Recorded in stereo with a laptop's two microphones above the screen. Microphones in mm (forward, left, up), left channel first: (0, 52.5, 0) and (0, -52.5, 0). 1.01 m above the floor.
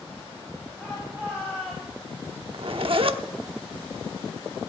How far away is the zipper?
About 0.8 m.